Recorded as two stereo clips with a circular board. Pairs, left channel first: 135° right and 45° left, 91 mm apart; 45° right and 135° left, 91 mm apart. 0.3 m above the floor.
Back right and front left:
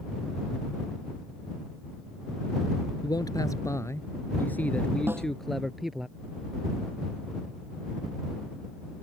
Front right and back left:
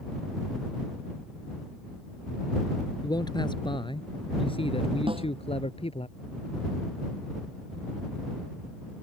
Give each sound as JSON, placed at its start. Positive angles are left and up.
{"t": 3.0, "sound": "a man speaking", "azimuth_deg": -90}
{"t": 5.1, "sound": "a snare drum", "azimuth_deg": 110}